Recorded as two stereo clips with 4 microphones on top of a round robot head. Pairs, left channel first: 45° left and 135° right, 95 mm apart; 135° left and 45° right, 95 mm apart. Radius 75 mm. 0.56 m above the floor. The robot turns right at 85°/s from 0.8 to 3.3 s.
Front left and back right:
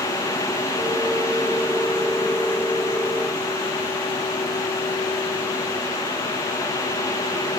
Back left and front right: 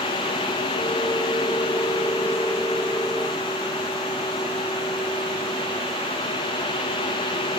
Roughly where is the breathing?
I don't hear breathing.